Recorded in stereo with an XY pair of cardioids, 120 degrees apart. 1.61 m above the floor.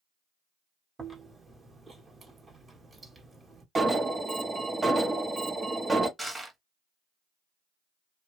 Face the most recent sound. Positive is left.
turn(degrees=-5)